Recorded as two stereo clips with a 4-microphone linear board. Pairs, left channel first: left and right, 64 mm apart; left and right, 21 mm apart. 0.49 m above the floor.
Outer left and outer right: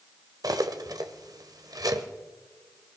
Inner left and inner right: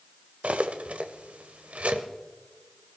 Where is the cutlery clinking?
75° right (ahead or behind), 1.1 m.